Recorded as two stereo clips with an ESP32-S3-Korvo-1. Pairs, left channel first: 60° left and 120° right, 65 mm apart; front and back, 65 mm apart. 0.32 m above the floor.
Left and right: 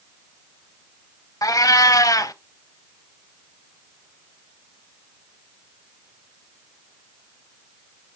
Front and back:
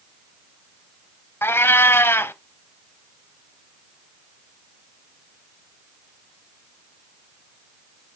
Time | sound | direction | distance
1.4 | a cat meowing | 50° left | 0.6 m